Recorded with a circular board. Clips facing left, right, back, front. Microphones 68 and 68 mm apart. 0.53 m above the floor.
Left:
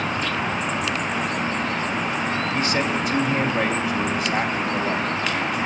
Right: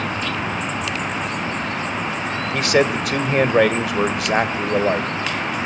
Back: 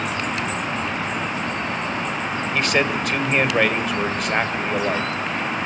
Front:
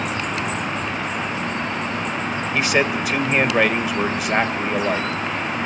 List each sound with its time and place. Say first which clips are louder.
2.5 s a man speaking: right 9 dB, front 1 dB; 85° right, 2 m